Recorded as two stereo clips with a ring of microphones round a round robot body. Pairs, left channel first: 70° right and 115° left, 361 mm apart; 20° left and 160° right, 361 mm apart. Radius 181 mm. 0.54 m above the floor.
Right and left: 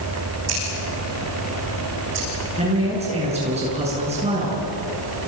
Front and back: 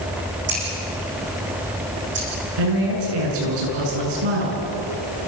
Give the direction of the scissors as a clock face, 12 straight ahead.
7 o'clock.